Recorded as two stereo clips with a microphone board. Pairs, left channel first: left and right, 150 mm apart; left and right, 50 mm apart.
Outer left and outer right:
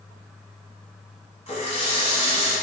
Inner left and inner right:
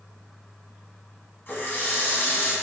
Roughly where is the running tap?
Left.